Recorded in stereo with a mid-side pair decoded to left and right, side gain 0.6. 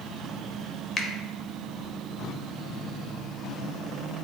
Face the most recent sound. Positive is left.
turn(degrees=35)